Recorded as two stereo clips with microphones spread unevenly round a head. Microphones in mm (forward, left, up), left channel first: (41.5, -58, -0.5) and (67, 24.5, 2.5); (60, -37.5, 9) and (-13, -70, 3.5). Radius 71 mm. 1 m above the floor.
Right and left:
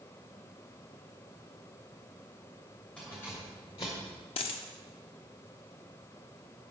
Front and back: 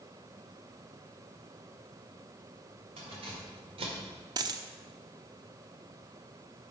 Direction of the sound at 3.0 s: 170° left.